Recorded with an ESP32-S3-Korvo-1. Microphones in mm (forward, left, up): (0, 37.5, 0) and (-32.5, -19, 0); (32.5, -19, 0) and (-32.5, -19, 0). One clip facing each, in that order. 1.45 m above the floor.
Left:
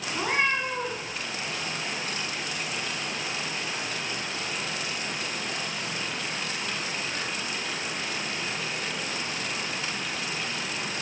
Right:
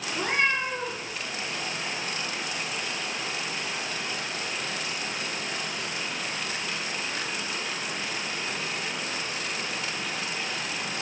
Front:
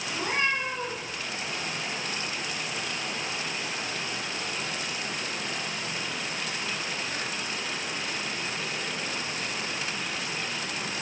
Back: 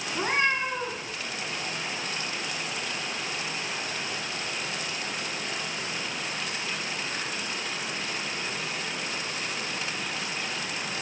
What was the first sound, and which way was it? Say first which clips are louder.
A cat meowing: even, back 2 dB; 135° left.